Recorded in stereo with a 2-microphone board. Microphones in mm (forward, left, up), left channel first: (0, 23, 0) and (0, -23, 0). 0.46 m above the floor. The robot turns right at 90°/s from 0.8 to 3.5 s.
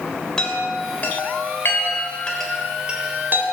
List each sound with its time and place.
0.4 s a chime: 20° left (ahead or behind), 2.5 m; by 3.4 s 55° right (ahead or behind), 2.5 m